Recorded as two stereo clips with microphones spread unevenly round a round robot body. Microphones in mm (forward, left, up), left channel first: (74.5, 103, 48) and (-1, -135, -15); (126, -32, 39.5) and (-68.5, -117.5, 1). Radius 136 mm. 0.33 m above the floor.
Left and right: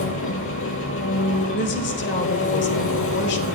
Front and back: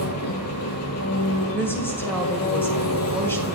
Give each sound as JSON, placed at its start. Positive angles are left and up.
{"t": 0.0, "sound": "an engine running", "azimuth_deg": 35, "distance_m": 2.5}
{"t": 1.5, "sound": "a woman speaking", "azimuth_deg": 115, "distance_m": 1.8}